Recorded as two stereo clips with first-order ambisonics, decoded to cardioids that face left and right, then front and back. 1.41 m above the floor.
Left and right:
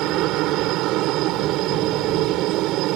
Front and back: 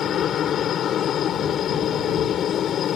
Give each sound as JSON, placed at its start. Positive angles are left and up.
{"t": 0.0, "sound": "a helicopter", "azimuth_deg": -55}